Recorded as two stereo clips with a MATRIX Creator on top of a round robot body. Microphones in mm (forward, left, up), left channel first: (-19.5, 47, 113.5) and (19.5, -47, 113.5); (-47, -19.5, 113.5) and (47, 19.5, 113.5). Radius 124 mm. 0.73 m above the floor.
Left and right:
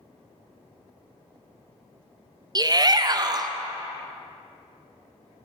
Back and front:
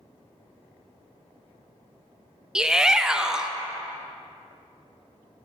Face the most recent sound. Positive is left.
turn(degrees=-55)